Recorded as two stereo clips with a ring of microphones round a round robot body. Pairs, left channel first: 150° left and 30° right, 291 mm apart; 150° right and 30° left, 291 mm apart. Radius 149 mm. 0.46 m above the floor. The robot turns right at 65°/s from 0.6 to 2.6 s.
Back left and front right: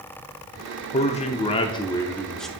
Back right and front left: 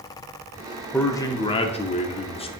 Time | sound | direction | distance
0.9 | a man speaking | 135° left | 0.7 m